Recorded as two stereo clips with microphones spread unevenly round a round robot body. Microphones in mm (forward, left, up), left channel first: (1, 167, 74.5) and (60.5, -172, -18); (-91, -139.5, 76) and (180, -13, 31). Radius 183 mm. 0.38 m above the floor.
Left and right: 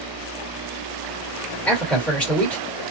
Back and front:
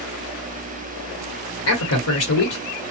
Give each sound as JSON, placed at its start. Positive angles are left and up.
{"t": 1.6, "sound": "a man speaking", "azimuth_deg": -155, "distance_m": 1.6}